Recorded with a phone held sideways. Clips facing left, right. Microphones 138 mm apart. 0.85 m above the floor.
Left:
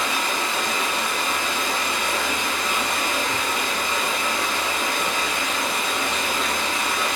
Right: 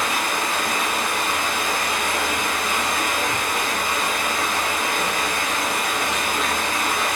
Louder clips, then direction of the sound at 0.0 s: Right 1 dB; 50° right (ahead or behind).